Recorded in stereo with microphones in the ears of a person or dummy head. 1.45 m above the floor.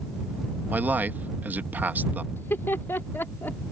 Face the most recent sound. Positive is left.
turn(degrees=20)  # may be behind; listen again after turning